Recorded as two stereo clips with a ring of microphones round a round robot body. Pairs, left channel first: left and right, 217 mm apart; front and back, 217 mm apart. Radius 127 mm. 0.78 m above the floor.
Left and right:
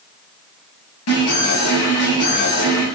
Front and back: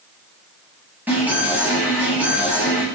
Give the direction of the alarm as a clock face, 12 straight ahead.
9 o'clock.